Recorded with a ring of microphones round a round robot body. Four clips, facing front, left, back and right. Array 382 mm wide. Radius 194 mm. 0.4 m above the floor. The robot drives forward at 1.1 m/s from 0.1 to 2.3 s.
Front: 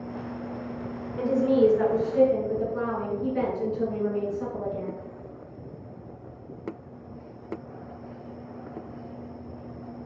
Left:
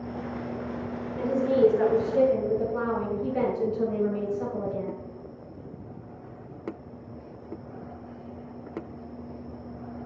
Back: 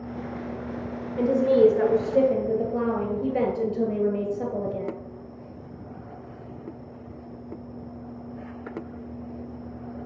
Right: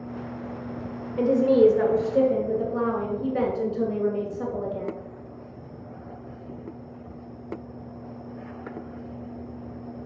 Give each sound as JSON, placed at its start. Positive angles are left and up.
{"t": 1.2, "sound": "a woman speaking", "azimuth_deg": -120, "distance_m": 1.8}